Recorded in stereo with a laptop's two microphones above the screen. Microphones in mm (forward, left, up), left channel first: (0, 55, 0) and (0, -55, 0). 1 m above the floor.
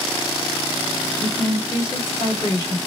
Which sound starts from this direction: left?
A woman speaking, at 1.2 s.